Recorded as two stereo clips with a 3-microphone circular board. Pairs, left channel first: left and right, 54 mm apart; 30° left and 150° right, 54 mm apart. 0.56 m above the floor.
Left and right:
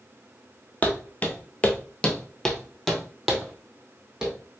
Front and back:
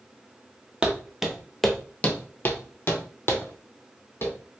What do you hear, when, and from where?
0.8 s footsteps: 140° left, 0.7 m; by 4.3 s 10° right, 1.3 m